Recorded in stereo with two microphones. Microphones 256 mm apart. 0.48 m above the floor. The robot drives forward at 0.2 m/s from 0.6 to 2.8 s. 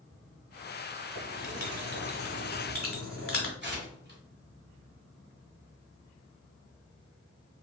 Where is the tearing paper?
40° right (ahead or behind), 1.4 m.